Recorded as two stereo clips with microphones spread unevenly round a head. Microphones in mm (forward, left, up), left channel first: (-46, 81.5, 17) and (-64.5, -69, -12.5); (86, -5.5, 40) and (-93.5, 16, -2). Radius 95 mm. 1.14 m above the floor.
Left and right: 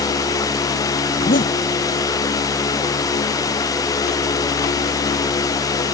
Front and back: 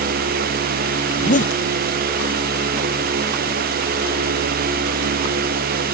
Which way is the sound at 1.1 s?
35° left.